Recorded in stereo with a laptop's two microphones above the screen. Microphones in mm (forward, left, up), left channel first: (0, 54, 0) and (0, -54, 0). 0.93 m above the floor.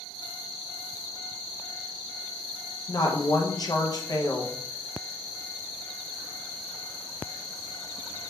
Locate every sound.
2.9 s a woman speaking: 40° left (ahead or behind), 0.6 m